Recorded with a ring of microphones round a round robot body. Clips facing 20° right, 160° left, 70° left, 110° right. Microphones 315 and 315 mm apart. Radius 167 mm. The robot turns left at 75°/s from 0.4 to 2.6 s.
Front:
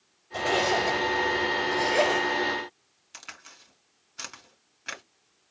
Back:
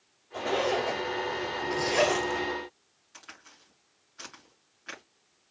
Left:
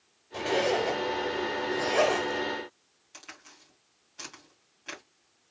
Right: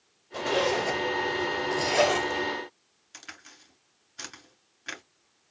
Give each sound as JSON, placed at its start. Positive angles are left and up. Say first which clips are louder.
{"t": 0.3, "sound": "a zipper", "louder": "front 1 dB, even", "azimuth_deg": -30, "distance_m": 1.3}
{"t": 3.1, "sound": "a crack", "louder": "front 1 dB, right 1 dB", "azimuth_deg": -45, "distance_m": 2.5}